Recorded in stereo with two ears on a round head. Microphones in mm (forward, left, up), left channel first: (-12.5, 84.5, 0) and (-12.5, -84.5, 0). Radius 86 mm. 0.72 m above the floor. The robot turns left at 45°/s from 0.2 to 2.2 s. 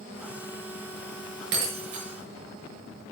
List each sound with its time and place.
1.5 s breaking glass: 65° right (ahead or behind), 5.5 m; by 2.0 s 85° right, 5.5 m